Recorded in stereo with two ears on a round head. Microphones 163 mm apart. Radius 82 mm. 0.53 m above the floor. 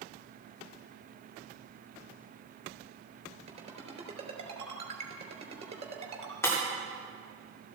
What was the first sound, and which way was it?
A ringtone, 35° right (ahead or behind).